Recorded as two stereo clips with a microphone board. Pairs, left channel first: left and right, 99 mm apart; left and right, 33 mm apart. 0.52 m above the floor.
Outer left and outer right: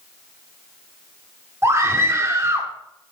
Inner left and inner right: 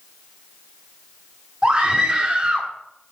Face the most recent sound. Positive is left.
turn(degrees=-30)  # may be behind; listen again after turning